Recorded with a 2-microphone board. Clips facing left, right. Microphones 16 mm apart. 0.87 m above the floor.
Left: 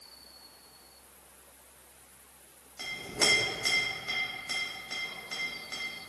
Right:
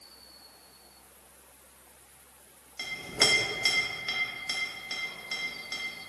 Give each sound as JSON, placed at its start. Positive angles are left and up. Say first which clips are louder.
{"t": 2.8, "sound": "a clink", "louder": "right 2 dB", "side_deg": -35, "distance_m": 0.6}